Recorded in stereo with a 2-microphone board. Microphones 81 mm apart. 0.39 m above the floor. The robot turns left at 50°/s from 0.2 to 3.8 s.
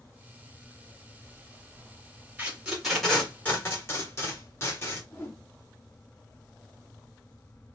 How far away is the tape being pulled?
About 2 m.